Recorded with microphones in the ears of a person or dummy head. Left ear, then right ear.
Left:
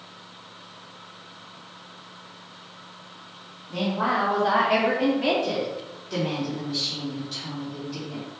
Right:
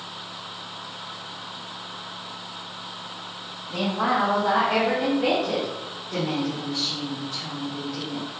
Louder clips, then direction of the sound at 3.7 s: Right 1 dB; 15° right (ahead or behind).